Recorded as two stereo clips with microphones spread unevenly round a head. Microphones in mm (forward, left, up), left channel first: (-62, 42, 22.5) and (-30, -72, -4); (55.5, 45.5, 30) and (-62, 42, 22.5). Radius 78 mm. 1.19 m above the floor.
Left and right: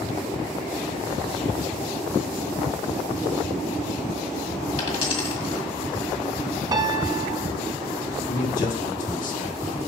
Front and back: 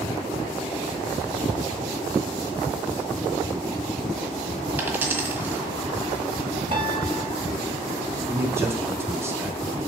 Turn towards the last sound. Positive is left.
turn(degrees=110)